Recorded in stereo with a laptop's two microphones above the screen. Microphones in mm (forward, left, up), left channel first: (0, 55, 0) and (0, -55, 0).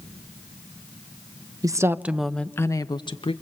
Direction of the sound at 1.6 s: 35° right (ahead or behind).